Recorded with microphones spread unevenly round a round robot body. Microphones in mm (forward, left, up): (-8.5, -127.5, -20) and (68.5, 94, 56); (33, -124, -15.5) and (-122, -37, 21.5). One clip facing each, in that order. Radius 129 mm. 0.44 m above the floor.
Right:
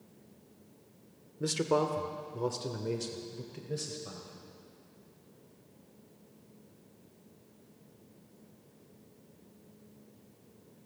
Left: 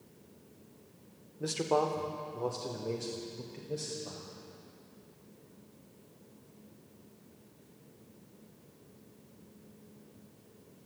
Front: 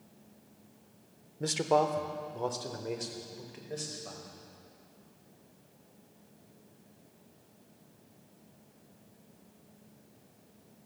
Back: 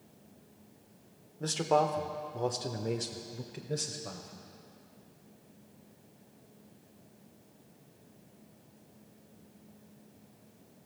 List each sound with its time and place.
1.4 s a man speaking: 80° right, 1.0 m; by 4.5 s 170° right, 1.7 m